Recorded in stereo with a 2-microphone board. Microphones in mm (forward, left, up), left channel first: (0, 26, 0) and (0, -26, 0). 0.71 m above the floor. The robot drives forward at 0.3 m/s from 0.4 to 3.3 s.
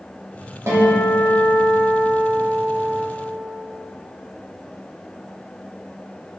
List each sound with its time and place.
0.7 s a guitar: 55° right (ahead or behind), 1.1 m